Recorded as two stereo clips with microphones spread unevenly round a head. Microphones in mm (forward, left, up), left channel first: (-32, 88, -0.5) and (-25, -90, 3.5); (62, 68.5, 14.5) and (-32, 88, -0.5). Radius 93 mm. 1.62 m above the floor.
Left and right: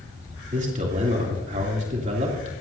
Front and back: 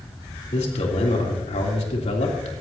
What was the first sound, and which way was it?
A man speaking, 30° right.